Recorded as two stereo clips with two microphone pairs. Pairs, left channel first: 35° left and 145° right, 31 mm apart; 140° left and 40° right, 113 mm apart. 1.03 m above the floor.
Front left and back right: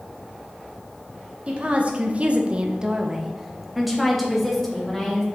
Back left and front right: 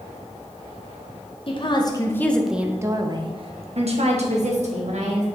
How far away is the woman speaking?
About 1.2 m.